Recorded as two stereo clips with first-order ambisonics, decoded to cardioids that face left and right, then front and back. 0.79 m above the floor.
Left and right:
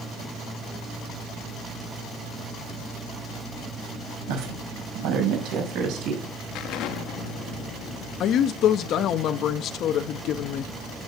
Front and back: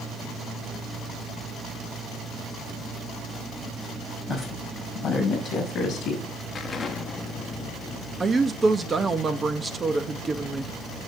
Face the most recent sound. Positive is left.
turn(degrees=115)